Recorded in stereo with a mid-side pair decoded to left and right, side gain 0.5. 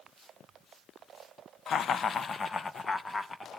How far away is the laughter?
About 0.9 m.